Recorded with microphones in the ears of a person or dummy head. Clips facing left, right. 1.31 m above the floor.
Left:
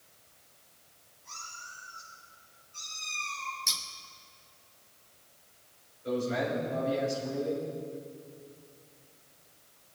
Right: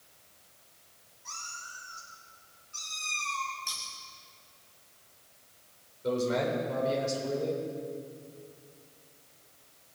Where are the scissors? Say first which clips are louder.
Even; 35° left (ahead or behind), 1.4 m.